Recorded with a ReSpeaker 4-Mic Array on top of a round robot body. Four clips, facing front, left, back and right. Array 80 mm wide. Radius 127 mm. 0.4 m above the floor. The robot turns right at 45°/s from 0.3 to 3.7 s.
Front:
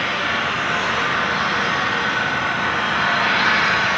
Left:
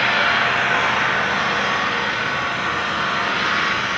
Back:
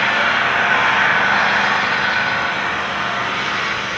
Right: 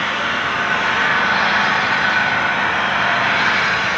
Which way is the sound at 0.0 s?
155° left.